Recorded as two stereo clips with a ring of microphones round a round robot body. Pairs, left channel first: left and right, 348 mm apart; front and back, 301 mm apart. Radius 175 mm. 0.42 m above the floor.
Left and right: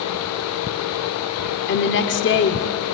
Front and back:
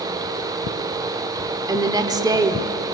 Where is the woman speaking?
110° left, 1.0 m.